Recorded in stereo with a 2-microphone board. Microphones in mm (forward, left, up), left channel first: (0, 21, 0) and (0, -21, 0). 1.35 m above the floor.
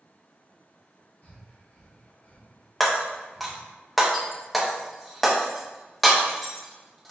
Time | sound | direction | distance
1.2 | breathing | 55° left (ahead or behind) | 1.7 m
2.8 | breaking glass | centre (ahead or behind) | 0.7 m